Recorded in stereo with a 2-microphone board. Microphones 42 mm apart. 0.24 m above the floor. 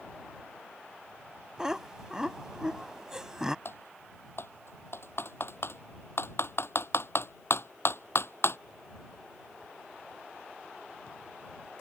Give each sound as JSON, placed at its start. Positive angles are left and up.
{"t": 1.6, "sound": "laughter", "side_deg": -15}
{"t": 3.6, "sound": "typing on a keyboard", "side_deg": 65}